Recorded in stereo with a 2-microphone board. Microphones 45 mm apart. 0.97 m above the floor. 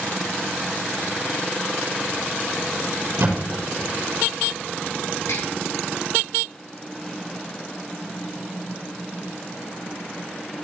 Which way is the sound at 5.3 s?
85° left.